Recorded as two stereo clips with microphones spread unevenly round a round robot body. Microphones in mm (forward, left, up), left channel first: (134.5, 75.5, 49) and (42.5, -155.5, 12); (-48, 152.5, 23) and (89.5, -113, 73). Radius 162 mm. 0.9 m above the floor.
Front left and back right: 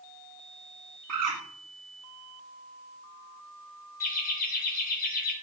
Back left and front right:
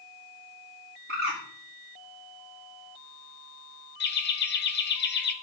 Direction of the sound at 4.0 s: 120° left.